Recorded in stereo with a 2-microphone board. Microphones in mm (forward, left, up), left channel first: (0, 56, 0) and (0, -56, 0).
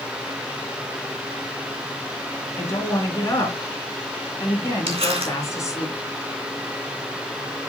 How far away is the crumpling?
About 3 m.